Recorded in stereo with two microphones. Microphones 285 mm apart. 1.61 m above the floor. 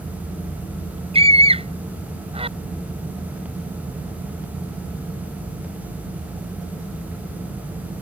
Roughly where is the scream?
Right.